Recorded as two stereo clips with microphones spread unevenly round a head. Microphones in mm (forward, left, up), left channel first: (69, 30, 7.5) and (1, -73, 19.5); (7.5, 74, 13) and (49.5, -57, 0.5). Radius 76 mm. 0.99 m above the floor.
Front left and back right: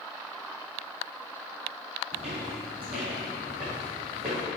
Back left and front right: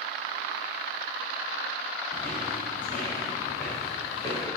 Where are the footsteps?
165° right, 2.0 m; by 4.4 s 170° left, 4 m.